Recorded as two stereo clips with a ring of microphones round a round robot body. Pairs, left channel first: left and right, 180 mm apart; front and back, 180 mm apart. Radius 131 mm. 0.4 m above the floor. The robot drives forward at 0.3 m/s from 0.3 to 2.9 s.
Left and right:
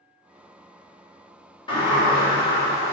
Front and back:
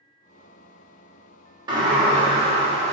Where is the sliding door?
130° left, 1.3 m; by 2.9 s 145° left, 1.4 m.